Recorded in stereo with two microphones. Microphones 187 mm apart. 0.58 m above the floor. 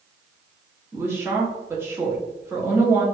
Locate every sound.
0.9 s a woman speaking: 15° right (ahead or behind), 0.8 m